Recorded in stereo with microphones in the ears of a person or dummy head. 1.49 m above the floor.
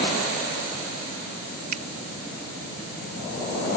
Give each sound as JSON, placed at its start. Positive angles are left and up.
{"t": 1.7, "sound": "a finger snap", "side_deg": -45}